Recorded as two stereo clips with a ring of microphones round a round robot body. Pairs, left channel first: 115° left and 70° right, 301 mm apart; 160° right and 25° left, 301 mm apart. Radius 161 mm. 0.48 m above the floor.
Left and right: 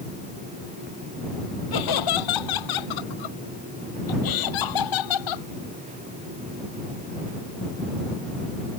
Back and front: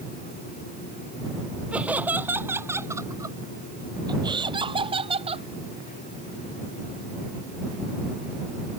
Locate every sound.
1.7 s laughter: 110° left; by 5.5 s 95° left